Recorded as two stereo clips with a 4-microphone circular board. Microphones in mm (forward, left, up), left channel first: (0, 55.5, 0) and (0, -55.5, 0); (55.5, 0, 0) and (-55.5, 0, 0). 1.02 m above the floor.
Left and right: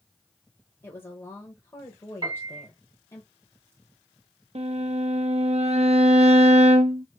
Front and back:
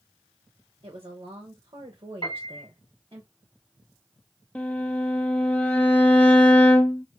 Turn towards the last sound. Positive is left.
turn(degrees=-80)